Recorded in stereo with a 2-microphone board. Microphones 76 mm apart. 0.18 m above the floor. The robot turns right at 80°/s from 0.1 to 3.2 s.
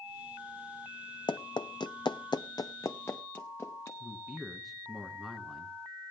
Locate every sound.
1.3 s running footsteps: 80° left, 0.6 m; by 3.9 s 35° left (ahead or behind), 1.3 m
4.0 s a man speaking: centre (ahead or behind), 1.7 m